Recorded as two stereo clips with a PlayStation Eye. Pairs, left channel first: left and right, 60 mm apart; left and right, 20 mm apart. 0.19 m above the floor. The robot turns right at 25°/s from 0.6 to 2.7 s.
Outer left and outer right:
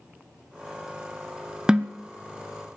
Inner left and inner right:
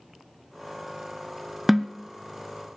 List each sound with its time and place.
1.7 s a snare drum: 15° right (ahead or behind), 0.6 m; by 2.0 s 20° right (ahead or behind), 0.6 m